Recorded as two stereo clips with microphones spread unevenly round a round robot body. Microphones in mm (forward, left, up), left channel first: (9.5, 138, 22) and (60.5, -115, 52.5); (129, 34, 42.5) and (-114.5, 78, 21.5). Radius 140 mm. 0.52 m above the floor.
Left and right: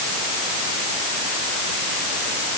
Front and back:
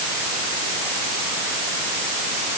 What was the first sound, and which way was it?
Only background noise.